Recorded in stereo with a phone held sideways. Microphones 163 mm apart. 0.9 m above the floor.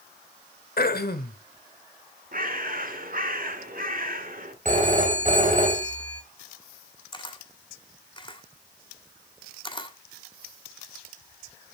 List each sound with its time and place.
0.8 s throat clearing: 70° left (ahead or behind), 1.2 m
2.3 s a bird: 60° right (ahead or behind), 1.7 m
4.7 s a phone ringing: 50° right (ahead or behind), 2.5 m
7.1 s a camera shutter: 30° left (ahead or behind), 1.6 m